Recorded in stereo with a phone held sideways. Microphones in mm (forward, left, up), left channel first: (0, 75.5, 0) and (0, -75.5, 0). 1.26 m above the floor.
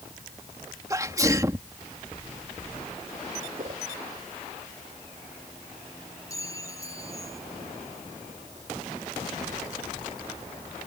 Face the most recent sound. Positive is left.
turn(degrees=20)  # may be behind; listen again after turning